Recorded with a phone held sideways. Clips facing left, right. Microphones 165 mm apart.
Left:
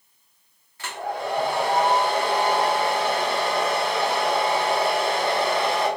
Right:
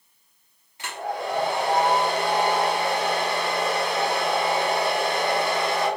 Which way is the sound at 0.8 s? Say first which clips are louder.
Left 1 dB; 20° right (ahead or behind).